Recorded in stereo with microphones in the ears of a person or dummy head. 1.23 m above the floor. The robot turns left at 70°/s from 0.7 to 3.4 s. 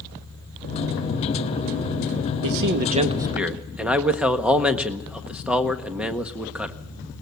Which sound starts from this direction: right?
A man speaking, at 2.4 s.